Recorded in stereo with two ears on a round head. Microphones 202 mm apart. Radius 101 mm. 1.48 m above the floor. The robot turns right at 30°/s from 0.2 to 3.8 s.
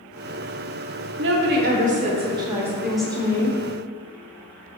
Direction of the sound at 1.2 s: 55° right.